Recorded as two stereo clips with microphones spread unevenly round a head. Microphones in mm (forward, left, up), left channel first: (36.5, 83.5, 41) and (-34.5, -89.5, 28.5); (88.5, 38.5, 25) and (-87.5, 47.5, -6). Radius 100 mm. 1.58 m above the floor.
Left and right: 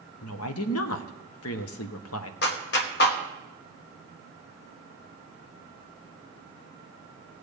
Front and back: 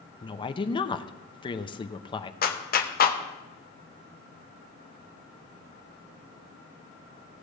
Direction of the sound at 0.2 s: 60° left.